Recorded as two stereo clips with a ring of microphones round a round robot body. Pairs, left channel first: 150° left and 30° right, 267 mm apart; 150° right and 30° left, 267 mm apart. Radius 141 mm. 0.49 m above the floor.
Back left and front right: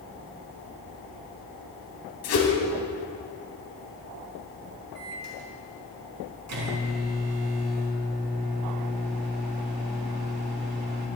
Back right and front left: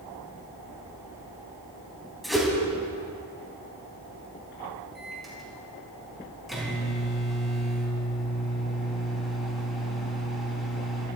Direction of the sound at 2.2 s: 120° left.